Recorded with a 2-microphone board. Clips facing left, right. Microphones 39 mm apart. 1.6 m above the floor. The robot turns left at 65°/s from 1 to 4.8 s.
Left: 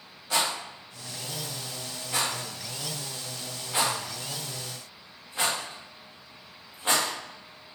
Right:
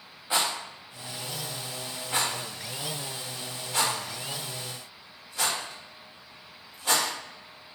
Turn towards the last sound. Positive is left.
turn(degrees=30)  # may be behind; listen again after turning